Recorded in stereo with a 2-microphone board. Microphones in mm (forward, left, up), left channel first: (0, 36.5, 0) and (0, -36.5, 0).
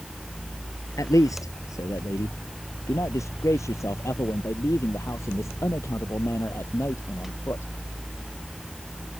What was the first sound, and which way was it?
A man speaking, 45° left (ahead or behind).